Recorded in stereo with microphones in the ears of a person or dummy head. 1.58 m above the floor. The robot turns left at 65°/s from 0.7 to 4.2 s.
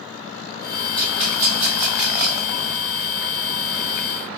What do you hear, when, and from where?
1.0 s a rattle: 25° right (ahead or behind), 1.3 m; by 2.5 s 40° right (ahead or behind), 1.3 m